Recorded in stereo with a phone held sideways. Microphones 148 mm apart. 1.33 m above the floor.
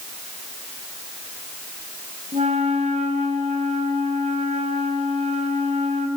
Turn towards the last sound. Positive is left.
turn(degrees=-50)  # may be behind; listen again after turning